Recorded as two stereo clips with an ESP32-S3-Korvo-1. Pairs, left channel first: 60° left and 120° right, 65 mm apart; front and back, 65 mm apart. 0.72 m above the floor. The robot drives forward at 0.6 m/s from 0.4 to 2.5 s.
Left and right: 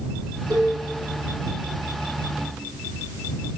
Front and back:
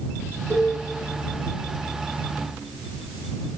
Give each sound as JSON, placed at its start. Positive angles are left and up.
{"t": 0.5, "sound": "a cowbell", "azimuth_deg": -125, "distance_m": 5.0}